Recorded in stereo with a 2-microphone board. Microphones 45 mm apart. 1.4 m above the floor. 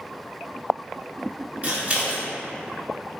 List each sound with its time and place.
1.6 s scissors: 25° right (ahead or behind), 0.6 m